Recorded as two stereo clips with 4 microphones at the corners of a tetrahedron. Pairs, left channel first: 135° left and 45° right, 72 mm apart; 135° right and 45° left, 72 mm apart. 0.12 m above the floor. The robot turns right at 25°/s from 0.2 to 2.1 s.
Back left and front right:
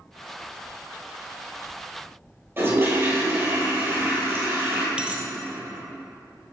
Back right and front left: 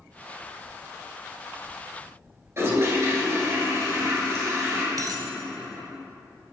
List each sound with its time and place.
2.6 s a toilet flushing: 5° left, 1.9 m
5.0 s a dropped coin: 25° left, 0.7 m